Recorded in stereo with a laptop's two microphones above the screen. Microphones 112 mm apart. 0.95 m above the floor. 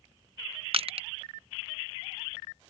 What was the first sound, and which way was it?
Crushing, 60° right (ahead or behind).